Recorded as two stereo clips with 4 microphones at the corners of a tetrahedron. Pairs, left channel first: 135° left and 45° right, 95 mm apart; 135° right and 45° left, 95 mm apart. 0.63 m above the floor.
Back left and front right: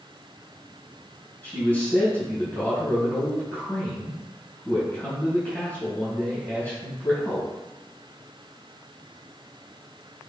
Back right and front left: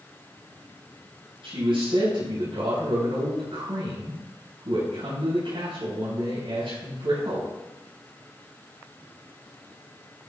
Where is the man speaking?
65° left, 4.5 m.